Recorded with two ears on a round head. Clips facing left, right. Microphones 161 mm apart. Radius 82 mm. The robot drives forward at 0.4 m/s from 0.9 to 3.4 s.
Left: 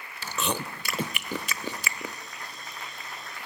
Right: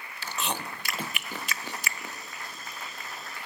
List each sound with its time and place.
0.2 s chewing: 70° left (ahead or behind), 0.6 m; by 2.1 s 60° left (ahead or behind), 0.7 m